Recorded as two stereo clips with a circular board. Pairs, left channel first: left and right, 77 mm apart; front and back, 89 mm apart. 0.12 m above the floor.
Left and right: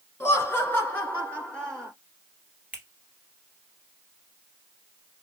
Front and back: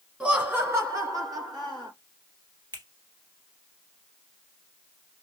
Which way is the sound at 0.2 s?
110° left.